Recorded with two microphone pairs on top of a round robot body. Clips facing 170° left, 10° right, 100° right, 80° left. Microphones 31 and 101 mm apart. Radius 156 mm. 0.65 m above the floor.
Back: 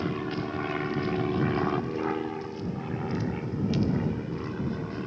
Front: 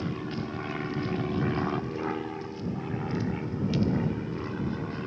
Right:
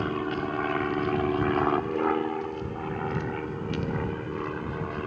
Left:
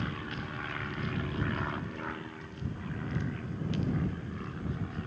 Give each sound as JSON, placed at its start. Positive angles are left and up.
{"t": 0.0, "sound": "an aircraft", "azimuth_deg": -115}